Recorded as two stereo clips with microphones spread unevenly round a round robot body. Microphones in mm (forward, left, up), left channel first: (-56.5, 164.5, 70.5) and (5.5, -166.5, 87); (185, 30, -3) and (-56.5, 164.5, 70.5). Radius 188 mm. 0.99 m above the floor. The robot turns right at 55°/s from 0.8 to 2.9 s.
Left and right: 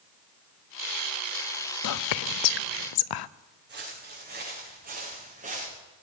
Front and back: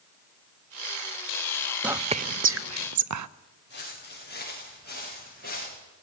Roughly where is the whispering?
Ahead left.